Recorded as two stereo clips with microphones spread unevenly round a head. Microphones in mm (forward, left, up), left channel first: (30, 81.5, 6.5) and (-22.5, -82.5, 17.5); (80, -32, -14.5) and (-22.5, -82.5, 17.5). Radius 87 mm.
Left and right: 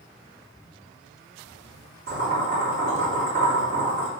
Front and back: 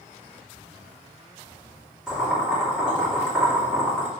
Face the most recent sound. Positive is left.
turn(degrees=-70)